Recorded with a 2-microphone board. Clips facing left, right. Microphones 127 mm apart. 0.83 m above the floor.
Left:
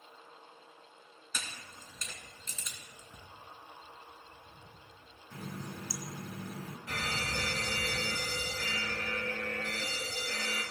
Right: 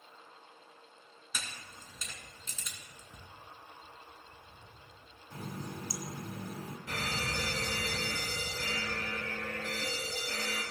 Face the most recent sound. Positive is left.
turn(degrees=-35)  # may be behind; listen again after turning